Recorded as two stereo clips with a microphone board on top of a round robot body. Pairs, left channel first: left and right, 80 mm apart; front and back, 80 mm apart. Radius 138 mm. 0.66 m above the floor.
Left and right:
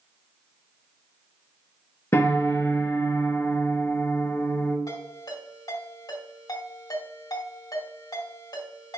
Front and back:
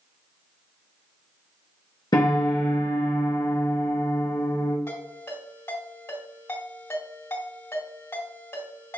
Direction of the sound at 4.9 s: 55° left.